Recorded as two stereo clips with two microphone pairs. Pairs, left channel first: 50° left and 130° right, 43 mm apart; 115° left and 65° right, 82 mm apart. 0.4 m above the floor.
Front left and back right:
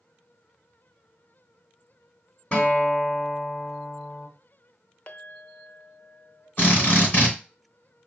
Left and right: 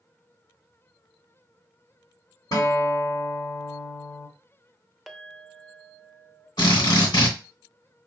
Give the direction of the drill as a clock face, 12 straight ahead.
9 o'clock.